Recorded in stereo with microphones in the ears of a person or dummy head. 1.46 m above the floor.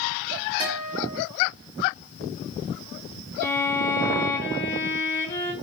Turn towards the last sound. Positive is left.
turn(degrees=15)  # may be behind; listen again after turning